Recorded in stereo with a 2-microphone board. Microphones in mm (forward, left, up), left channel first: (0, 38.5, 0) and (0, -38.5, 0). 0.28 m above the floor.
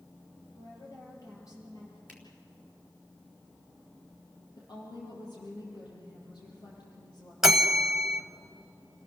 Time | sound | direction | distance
0.6 | a woman speaking | 50° left (ahead or behind) | 8 m
2.1 | a finger snap | 20° left (ahead or behind) | 4.5 m
4.6 | a woman speaking | 65° left (ahead or behind) | 6.5 m
7.4 | a bell | 5° right (ahead or behind) | 1.4 m